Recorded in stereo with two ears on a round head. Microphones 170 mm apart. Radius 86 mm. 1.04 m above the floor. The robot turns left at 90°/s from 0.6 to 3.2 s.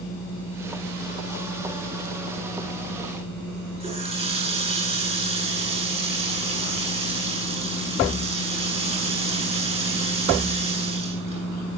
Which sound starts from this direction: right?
A running tap, at 3.8 s.